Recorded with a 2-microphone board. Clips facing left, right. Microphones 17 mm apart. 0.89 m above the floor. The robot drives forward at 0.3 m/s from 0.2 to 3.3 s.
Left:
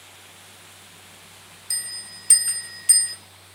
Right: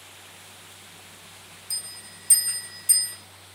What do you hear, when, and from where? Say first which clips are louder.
1.7 s a bell: left 4 dB; 60° left (ahead or behind), 0.6 m; by 3.1 s 45° left (ahead or behind), 0.7 m